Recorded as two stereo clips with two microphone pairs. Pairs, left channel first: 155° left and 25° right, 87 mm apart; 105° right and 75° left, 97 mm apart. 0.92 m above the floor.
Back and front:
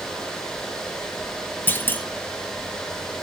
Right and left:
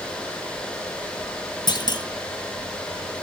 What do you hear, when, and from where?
1.7 s a clunk: 140° right, 1.4 m